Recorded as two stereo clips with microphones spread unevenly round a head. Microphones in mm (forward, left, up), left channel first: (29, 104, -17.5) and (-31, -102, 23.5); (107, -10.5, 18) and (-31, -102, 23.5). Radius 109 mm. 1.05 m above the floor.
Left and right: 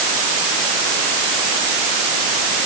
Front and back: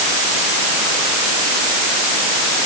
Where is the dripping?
No dripping in this recording.